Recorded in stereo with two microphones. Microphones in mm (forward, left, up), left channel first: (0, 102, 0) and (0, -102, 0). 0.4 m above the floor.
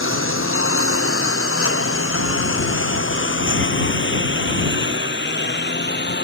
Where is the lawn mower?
80° left; by 6.2 s 55° left (ahead or behind).